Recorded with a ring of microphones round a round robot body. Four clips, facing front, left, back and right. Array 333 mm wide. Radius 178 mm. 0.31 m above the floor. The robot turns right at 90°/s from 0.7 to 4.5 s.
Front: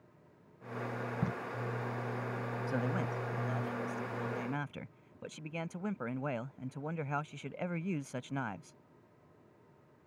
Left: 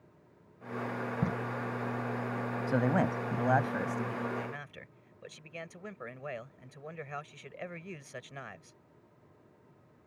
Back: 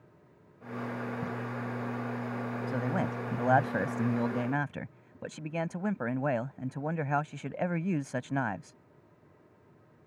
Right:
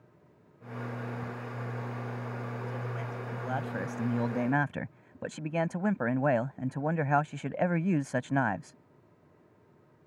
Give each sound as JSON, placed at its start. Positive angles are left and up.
{"t": 1.2, "sound": "tape being pulled", "azimuth_deg": 65}
{"t": 2.7, "sound": "a man speaking", "azimuth_deg": 85}